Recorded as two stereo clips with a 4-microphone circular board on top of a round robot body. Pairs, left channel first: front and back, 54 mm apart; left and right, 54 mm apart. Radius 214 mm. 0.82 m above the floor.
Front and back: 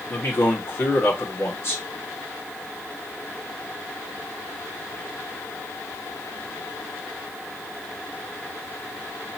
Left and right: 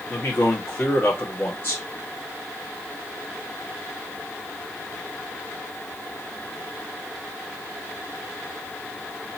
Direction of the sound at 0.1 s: 40° left.